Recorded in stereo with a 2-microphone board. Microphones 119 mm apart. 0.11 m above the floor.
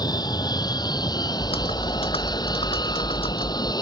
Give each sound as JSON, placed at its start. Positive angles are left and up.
{"t": 0.0, "sound": "an aircraft", "side_deg": 35}
{"t": 1.4, "sound": "typing on a keyboard", "side_deg": 55}